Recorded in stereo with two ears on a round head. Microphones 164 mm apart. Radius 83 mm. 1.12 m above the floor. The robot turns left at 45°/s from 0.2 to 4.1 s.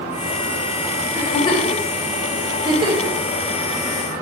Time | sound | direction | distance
1.1 | a giggle | 40° left (ahead or behind) | 3.5 m